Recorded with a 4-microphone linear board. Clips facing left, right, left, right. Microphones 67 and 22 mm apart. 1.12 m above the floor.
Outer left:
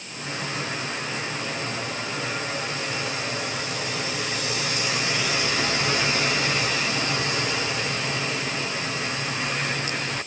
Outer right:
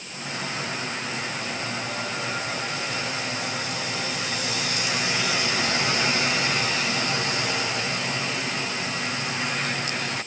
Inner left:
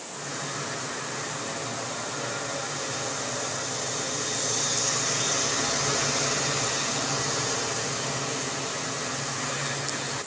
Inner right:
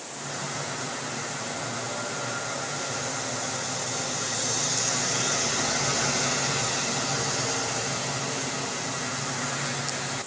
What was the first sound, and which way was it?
Only background noise.